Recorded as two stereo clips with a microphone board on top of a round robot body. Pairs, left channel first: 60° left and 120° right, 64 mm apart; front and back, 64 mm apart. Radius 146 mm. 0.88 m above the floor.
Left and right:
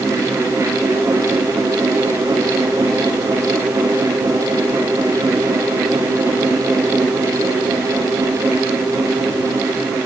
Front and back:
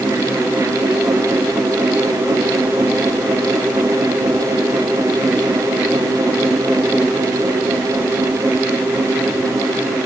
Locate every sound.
Only background noise.